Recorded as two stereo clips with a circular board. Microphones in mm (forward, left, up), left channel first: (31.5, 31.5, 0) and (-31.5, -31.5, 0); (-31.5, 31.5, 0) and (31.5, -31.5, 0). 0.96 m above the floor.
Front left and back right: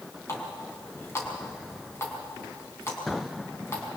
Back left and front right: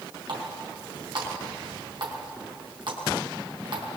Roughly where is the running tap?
Ahead.